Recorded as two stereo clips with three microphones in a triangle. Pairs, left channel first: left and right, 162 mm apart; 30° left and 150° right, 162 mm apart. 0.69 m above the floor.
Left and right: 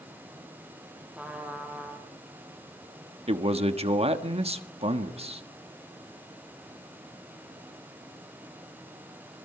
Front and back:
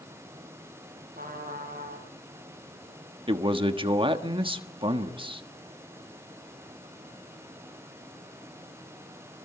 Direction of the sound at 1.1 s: 175° right.